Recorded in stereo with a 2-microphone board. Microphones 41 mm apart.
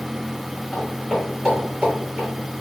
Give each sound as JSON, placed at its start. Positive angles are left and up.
{"t": 0.7, "sound": "footsteps", "side_deg": -5, "distance_m": 1.6}